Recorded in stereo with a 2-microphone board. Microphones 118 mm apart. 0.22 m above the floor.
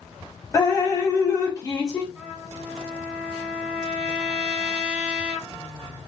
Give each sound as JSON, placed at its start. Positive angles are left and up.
{"t": 0.5, "sound": "dripping", "side_deg": 30, "distance_m": 0.9}
{"t": 2.1, "sound": "a trumpet", "side_deg": -10, "distance_m": 1.8}